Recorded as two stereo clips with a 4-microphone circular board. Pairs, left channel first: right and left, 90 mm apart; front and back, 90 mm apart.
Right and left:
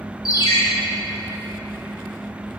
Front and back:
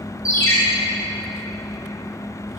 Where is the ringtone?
50° right, 2.5 m.